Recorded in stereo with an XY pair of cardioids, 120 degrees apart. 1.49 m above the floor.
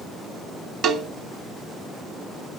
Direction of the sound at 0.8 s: 60° right.